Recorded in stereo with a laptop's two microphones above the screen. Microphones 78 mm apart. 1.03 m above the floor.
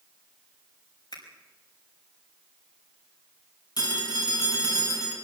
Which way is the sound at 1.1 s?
75° left (ahead or behind).